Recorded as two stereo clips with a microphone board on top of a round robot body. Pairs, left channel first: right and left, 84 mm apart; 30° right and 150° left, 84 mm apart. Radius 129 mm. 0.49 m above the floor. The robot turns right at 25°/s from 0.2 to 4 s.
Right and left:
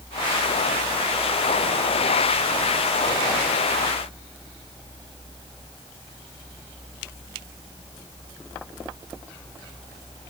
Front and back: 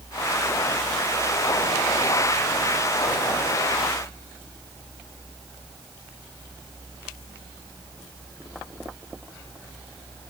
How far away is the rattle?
I don't hear a rattle.